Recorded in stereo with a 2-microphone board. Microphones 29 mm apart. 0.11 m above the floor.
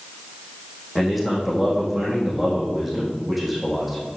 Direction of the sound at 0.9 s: 5° right (ahead or behind).